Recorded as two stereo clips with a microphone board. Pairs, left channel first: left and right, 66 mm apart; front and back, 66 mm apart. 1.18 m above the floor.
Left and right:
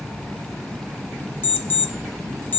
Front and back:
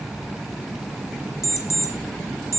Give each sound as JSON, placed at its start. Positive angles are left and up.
{"t": 1.4, "sound": "an alarm clock", "azimuth_deg": 35, "distance_m": 0.9}